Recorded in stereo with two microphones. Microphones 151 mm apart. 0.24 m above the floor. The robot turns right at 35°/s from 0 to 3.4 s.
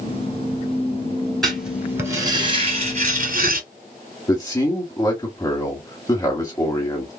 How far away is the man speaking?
About 1.1 m.